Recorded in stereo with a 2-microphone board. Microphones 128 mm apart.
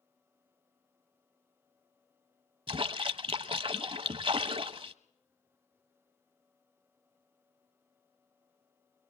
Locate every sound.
2.7 s a splash: 45° right (ahead or behind), 0.8 m